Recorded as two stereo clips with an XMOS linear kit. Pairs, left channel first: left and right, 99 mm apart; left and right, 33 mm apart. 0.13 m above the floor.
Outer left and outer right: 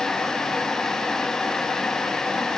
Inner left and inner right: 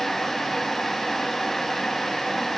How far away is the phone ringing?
I don't hear a phone ringing.